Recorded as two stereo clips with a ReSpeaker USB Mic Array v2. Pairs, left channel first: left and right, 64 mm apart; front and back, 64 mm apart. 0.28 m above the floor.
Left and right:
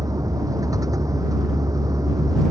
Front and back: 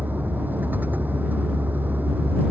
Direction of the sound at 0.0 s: 115° right.